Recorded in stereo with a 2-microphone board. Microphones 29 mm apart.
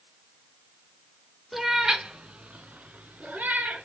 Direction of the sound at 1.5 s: 5° right (ahead or behind).